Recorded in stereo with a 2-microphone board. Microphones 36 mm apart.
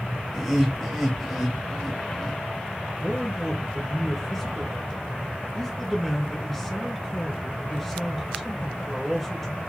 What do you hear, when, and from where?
0.3 s laughter: centre (ahead or behind), 1.5 m
3.0 s a man speaking: 5° left (ahead or behind), 2 m